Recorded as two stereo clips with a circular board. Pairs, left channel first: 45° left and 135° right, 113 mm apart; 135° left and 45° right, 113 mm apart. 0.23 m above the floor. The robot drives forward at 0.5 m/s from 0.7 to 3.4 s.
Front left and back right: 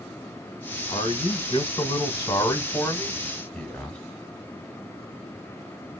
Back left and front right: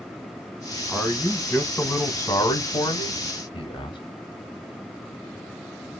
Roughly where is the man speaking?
Ahead left.